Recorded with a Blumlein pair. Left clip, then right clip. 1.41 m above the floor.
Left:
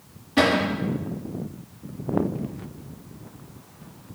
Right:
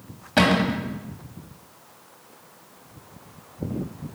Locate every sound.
0.4 s a cupboard door: 60° right, 0.9 m